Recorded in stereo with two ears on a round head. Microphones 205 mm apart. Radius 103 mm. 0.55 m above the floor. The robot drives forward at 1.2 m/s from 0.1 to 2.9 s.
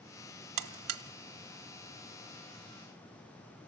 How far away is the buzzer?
About 1.2 m.